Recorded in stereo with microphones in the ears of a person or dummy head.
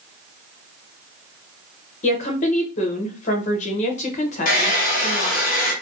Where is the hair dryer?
50° left (ahead or behind), 1.0 m.